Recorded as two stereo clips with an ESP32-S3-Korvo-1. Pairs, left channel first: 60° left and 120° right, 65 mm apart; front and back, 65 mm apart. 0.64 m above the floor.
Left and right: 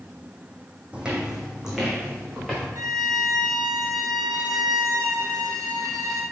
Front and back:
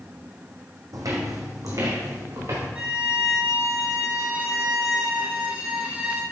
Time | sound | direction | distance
0.9 | footsteps | 170° left | 1.7 m
2.8 | a violin | 110° right | 1.7 m